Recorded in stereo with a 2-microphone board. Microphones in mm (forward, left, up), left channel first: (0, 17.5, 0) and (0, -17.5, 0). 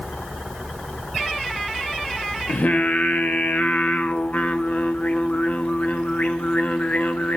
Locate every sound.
2.5 s singing: 50° left (ahead or behind), 0.8 m